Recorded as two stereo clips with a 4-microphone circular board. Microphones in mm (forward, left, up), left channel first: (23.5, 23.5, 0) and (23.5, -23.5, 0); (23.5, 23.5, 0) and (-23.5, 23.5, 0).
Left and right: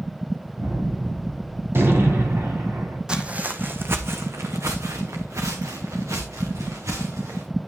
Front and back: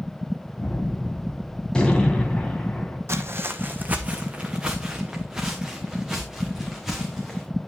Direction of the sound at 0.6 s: 70° right.